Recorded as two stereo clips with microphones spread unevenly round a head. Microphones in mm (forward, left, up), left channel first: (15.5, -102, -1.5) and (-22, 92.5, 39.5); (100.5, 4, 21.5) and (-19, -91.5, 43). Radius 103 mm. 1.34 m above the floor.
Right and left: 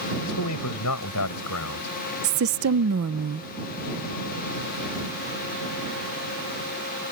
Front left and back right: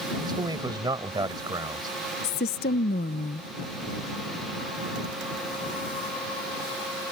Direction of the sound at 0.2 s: 80° right.